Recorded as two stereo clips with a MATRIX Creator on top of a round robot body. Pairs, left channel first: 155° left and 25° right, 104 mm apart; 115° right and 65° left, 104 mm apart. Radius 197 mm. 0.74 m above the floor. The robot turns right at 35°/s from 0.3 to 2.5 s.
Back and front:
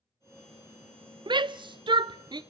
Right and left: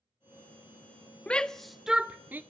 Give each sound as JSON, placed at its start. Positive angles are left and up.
{"t": 1.3, "sound": "a shout", "azimuth_deg": -35, "distance_m": 0.5}